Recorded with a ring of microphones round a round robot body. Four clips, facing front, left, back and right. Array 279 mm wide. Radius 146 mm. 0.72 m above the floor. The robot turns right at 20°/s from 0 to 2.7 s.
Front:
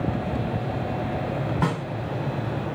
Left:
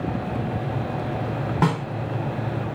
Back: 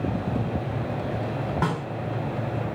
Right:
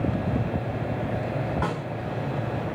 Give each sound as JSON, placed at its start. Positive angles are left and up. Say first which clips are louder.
{"t": 1.6, "sound": "a snare drum", "louder": "left 6 dB, even", "azimuth_deg": 90, "distance_m": 4.0}